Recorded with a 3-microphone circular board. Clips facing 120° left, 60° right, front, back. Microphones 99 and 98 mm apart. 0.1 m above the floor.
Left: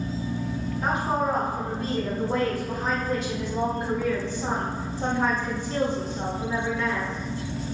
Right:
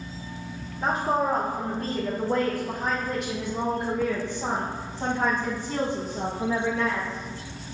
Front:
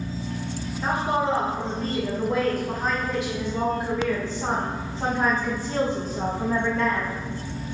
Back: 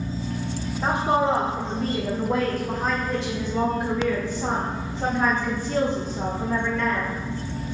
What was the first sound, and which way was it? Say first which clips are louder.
A woman speaking: right 1 dB, back 2 dB; 120° right.